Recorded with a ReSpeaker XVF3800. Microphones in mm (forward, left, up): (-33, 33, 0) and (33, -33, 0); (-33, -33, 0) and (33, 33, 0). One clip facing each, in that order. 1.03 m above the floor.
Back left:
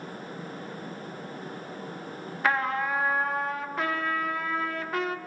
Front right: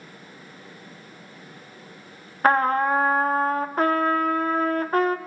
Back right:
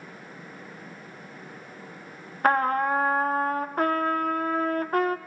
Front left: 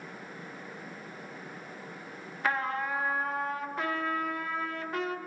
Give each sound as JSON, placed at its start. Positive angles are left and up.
{"t": 2.4, "sound": "a trumpet", "azimuth_deg": -95, "distance_m": 0.6}